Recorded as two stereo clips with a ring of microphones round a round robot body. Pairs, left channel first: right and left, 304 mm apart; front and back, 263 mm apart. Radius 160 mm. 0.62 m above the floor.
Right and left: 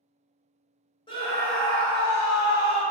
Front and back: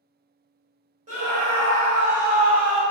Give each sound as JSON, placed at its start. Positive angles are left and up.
{"t": 1.1, "sound": "a scream", "azimuth_deg": -150, "distance_m": 1.0}